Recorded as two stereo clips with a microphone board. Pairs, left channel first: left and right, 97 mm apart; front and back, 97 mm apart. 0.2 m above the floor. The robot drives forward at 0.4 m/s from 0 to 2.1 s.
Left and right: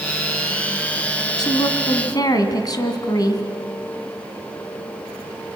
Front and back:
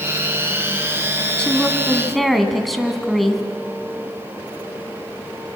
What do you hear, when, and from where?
1.4 s a woman speaking: 75° left, 2.0 m; by 3.4 s 90° left, 2.0 m